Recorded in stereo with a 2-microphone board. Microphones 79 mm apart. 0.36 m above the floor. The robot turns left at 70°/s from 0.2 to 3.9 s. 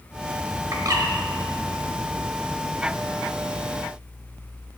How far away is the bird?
About 1.4 m.